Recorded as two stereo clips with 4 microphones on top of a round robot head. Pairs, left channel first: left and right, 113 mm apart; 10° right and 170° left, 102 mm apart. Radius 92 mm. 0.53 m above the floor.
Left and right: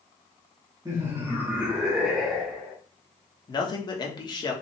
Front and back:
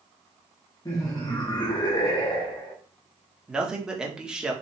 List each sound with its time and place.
0.8 s laughter: 45° right, 1.2 m; by 2.8 s 5° left, 1.6 m
3.5 s a man speaking: 90° left, 1.3 m